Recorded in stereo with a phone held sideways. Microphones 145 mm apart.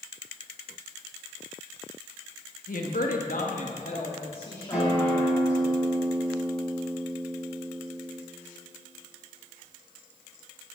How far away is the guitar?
About 5 m.